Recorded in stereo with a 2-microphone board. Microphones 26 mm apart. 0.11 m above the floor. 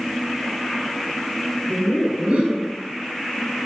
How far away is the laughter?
About 4.5 m.